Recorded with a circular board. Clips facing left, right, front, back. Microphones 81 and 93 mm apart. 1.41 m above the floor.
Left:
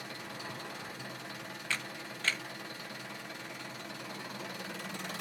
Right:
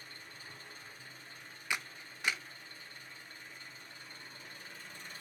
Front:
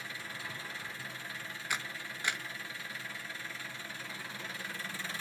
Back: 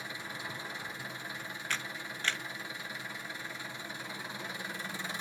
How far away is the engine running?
About 0.9 m.